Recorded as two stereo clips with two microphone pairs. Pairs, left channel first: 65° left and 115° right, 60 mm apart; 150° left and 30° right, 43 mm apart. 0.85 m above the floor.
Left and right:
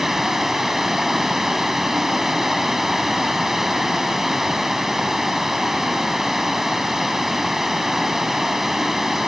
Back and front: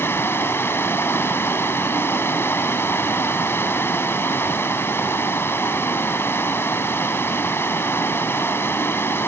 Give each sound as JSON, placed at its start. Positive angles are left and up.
{"t": 0.0, "sound": "running water", "azimuth_deg": 160, "distance_m": 1.5}